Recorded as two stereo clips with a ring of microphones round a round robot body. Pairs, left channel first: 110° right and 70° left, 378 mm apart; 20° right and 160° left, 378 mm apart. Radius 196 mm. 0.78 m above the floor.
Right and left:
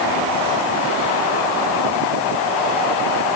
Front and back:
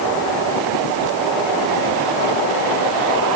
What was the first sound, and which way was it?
Only background noise.